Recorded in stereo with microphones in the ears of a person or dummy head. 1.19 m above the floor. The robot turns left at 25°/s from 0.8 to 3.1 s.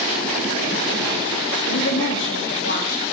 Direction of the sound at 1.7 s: 90° left.